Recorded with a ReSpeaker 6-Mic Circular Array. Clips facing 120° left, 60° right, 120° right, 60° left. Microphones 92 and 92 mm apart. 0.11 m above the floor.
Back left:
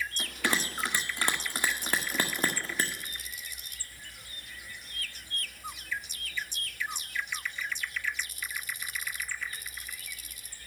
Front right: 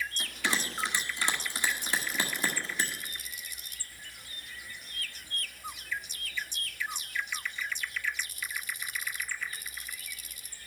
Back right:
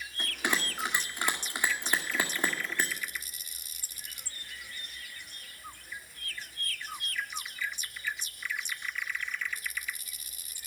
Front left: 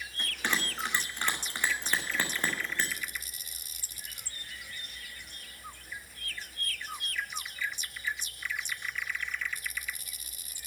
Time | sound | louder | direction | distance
0.2 | a bell | back left 3 dB, back right 1 dB | 165° left | 1.9 m